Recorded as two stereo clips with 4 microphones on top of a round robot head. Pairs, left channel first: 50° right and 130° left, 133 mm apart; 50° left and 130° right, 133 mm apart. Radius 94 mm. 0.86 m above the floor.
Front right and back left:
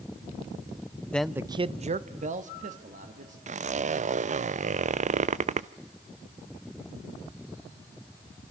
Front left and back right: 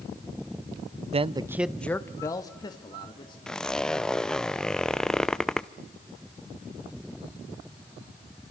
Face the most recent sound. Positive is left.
turn(degrees=135)